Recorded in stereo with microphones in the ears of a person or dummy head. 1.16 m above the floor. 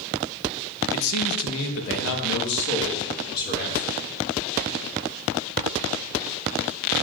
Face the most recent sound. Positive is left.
turn(degrees=50)  # may be behind; listen again after turning